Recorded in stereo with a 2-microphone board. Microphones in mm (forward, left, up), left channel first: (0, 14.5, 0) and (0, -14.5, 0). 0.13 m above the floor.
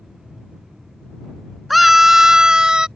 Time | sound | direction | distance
1.7 | a scream | 5° right (ahead or behind) | ?